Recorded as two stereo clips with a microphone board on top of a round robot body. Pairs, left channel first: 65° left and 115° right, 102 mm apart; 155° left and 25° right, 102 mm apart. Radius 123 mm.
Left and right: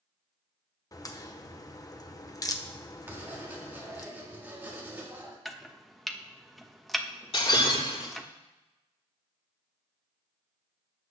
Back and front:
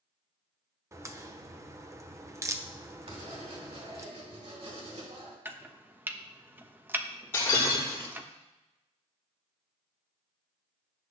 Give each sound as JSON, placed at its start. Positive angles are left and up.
{"t": 0.9, "sound": "a crack", "azimuth_deg": 30, "distance_m": 1.2}
{"t": 3.1, "sound": "writing", "azimuth_deg": -40, "distance_m": 3.0}
{"t": 5.5, "sound": "chopping", "azimuth_deg": -20, "distance_m": 1.2}
{"t": 7.3, "sound": "breaking glass", "azimuth_deg": 90, "distance_m": 6.0}